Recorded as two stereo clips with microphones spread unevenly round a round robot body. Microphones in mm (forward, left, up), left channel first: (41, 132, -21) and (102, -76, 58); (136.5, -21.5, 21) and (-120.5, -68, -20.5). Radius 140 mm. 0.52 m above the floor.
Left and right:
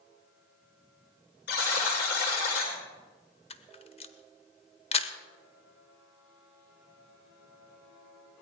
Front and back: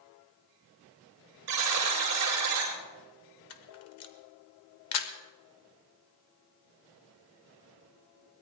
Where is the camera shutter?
50° left, 1.1 m.